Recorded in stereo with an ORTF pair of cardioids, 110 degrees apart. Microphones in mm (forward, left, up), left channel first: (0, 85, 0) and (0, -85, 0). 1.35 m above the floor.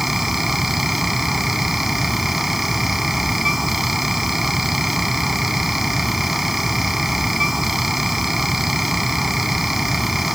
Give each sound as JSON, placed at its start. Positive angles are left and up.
{"t": 0.0, "sound": "a fan", "azimuth_deg": 0}